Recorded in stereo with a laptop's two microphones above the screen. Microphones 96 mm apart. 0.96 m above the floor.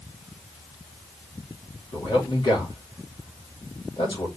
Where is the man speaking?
55° left (ahead or behind), 2.5 m.